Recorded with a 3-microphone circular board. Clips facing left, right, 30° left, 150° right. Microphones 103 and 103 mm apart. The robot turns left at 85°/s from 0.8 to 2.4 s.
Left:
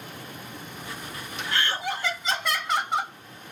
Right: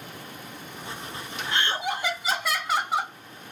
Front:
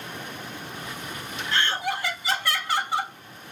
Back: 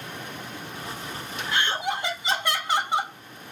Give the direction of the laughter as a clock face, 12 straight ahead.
3 o'clock.